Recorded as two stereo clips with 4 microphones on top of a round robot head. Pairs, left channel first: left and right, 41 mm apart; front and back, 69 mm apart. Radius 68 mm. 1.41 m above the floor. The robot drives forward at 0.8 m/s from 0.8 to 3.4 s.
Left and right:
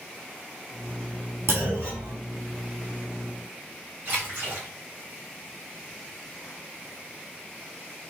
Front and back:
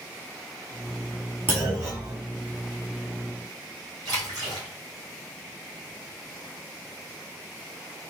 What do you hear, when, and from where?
1.5 s a clunk: 115° right, 3.5 m; by 2.2 s 125° right, 4 m
4.0 s a splash: 150° right, 3.5 m